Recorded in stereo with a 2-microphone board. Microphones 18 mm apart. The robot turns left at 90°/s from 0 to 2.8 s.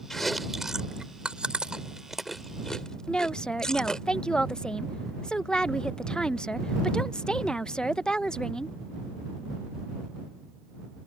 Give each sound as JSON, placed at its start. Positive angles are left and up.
{"t": 0.1, "sound": "chewing", "side_deg": 25}
{"t": 3.1, "sound": "a woman speaking", "side_deg": 55}